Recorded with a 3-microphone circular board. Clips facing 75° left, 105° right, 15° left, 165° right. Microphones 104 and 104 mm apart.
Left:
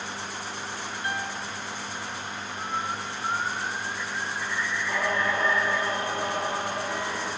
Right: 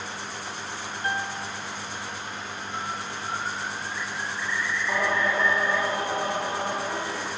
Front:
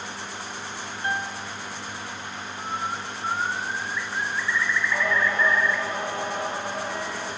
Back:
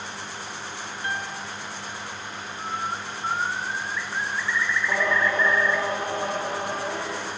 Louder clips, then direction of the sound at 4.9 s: Right 2 dB, back 3 dB; 170° right.